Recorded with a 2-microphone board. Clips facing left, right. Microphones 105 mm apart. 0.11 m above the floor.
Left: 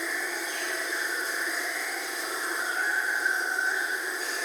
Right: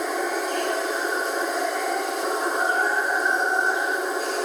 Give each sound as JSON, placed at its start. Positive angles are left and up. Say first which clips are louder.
{"t": 0.0, "sound": "running water", "louder": "right 9 dB", "side_deg": -70, "distance_m": 3.0}